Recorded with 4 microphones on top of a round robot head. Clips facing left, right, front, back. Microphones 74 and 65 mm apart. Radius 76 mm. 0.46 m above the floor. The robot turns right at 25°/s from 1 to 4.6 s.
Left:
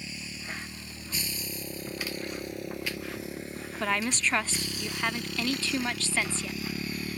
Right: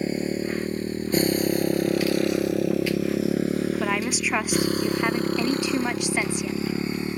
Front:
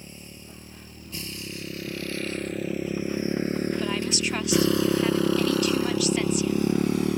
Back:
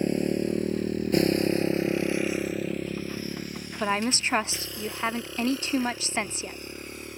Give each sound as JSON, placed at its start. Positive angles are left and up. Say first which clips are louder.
{"t": 0.0, "sound": "a motorcycle", "louder": "right 16 dB, back 20 dB", "azimuth_deg": -135}
{"t": 3.8, "sound": "a woman speaking", "louder": "right 4 dB, back 1 dB", "azimuth_deg": -170}